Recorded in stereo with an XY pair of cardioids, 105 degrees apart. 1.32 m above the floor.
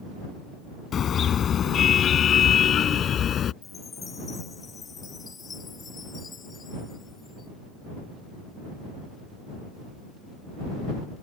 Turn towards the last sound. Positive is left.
turn(degrees=40)